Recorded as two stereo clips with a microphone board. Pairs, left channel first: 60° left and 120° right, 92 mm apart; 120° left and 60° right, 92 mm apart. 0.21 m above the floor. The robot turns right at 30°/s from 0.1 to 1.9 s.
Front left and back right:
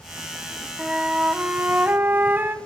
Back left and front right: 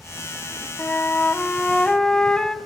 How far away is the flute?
About 0.7 m.